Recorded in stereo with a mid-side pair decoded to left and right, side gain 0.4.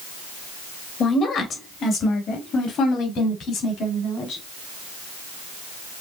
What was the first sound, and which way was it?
A woman speaking, 60° left.